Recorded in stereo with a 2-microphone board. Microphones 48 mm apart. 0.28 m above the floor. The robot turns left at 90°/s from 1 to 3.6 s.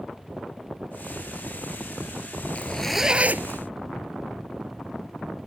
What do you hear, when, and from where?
2.5 s a zipper: 30° left; by 3.6 s 60° right